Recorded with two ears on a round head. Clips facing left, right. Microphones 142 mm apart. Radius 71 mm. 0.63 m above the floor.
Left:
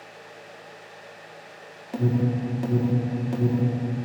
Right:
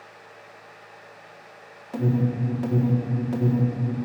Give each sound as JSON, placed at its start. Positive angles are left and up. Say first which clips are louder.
{"t": 1.9, "sound": "an alarm", "louder": "even", "side_deg": 15, "distance_m": 1.8}